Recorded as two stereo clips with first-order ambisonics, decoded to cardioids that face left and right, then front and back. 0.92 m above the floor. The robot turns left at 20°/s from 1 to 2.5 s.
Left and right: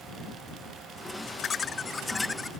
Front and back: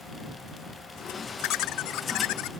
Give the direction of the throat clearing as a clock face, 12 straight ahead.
I don't hear throat clearing.